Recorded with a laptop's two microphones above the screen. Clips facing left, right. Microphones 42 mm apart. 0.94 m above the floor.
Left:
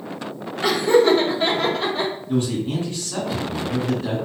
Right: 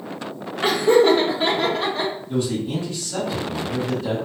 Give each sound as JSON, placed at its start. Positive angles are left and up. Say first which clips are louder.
{"t": 0.6, "sound": "laughter", "louder": "right 1 dB", "side_deg": -35, "distance_m": 1.3}
{"t": 2.3, "sound": "a man speaking", "louder": "left 2 dB", "side_deg": 50, "distance_m": 1.4}